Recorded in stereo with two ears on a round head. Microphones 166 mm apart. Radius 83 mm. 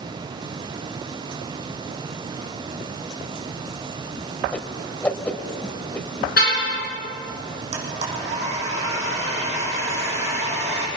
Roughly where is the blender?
Right.